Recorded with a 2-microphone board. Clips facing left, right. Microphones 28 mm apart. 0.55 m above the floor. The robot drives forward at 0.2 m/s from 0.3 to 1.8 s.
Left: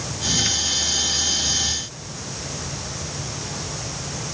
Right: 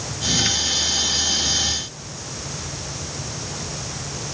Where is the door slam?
No door slam in this recording.